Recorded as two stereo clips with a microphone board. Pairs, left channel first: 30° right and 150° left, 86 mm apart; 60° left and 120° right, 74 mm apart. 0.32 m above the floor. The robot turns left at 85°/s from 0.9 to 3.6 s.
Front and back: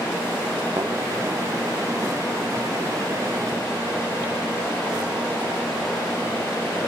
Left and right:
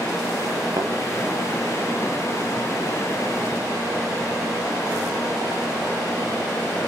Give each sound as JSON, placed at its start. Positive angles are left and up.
{"t": 0.8, "sound": "a thud", "azimuth_deg": -155, "distance_m": 2.5}